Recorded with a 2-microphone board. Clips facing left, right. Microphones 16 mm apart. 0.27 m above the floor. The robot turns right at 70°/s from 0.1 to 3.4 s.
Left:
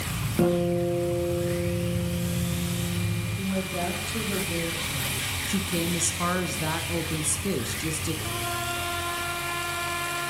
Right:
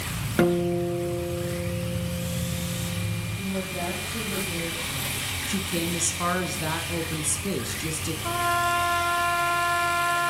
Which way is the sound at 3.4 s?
25° left (ahead or behind).